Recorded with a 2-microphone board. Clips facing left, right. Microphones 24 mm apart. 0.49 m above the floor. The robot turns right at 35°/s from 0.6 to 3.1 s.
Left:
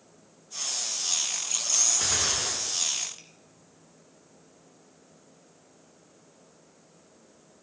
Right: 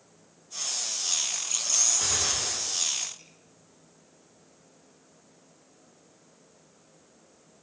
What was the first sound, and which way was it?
A gunshot, 25° left.